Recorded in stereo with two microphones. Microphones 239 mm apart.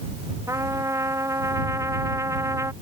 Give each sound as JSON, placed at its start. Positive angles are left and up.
{"t": 0.5, "sound": "a trumpet", "side_deg": -10}